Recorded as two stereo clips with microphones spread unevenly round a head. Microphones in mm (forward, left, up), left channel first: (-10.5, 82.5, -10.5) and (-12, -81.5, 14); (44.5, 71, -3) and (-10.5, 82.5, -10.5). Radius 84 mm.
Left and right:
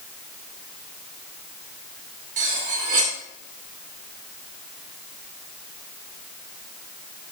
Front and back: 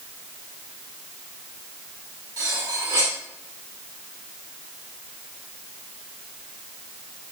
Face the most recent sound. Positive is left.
turn(degrees=-135)